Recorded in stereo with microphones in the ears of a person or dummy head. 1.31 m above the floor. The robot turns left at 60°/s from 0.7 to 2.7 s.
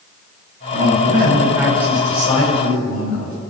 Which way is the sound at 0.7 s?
120° right.